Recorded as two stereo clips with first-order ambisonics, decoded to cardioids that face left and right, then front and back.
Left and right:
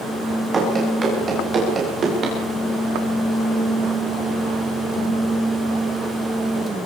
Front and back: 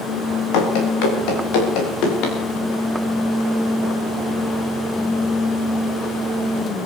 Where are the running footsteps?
20° right, 7 m; by 2.4 s 30° right, 7 m.